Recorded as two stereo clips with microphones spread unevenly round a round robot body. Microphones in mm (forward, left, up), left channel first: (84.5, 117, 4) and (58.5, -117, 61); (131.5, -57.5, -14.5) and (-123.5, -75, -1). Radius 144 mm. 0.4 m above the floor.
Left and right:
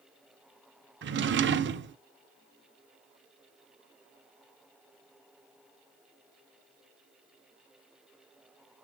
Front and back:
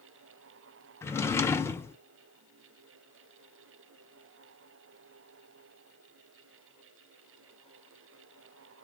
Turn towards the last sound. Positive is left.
turn(degrees=-65)